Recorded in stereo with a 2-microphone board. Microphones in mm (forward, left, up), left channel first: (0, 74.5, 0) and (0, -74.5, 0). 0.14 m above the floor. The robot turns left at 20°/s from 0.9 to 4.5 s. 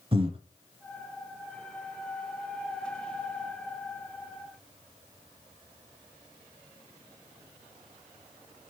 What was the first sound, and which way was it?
Breathing, 35° right (ahead or behind).